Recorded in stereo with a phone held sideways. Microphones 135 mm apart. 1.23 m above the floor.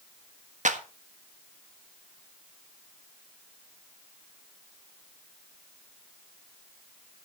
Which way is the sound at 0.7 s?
65° right (ahead or behind).